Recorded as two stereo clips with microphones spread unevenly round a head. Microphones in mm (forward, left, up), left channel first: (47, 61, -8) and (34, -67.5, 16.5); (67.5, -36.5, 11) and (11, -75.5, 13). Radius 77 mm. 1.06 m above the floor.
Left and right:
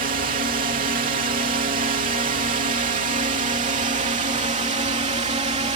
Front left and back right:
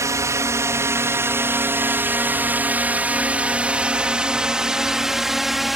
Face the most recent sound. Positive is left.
turn(degrees=-55)